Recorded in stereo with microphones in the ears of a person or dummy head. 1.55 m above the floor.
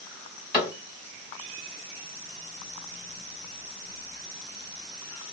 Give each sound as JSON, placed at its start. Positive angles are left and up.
{"t": 0.5, "sound": "a cupboard door", "side_deg": -5, "distance_m": 2.0}